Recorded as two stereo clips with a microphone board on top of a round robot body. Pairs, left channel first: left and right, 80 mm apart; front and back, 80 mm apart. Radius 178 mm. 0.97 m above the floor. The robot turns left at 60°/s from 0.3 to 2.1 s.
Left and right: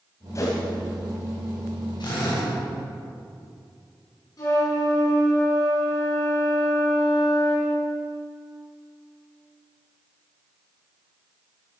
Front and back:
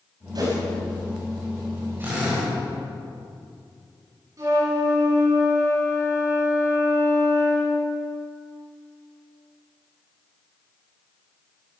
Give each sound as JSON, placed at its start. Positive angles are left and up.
{"t": 0.3, "sound": "a whoosh", "azimuth_deg": 140, "distance_m": 4.5}
{"t": 2.0, "sound": "a drill", "azimuth_deg": 115, "distance_m": 7.0}
{"t": 4.4, "sound": "a flute", "azimuth_deg": 130, "distance_m": 8.0}